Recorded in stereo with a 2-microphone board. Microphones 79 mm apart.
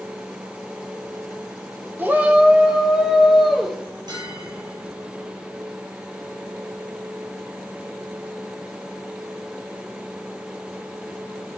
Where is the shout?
25° right (ahead or behind), 1.0 m; by 3.8 s 5° right (ahead or behind), 2.5 m.